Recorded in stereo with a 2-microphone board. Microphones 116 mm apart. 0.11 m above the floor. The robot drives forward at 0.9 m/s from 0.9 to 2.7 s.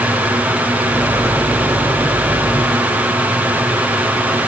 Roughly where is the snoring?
No snoring in this recording.